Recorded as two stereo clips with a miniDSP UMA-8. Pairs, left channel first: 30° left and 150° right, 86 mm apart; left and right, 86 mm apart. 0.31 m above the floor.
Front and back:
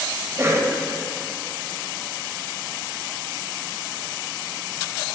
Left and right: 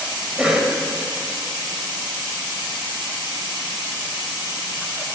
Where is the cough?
165° right, 1.4 m.